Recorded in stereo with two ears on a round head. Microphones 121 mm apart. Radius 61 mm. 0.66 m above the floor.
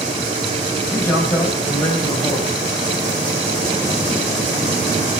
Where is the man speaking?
20° left (ahead or behind), 5 m.